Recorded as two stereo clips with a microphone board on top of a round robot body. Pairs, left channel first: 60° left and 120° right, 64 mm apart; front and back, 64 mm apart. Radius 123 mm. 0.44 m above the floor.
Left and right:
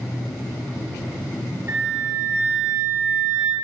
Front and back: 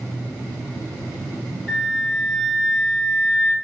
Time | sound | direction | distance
1.7 | a flute | 80° right | 3 m